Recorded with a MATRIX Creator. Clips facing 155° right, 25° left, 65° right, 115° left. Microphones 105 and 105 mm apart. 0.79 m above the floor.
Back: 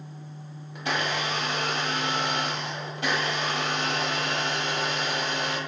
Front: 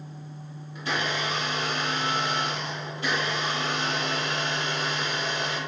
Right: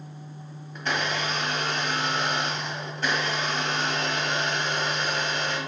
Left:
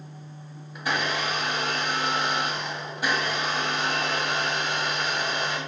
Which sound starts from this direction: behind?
A blender, at 0.8 s.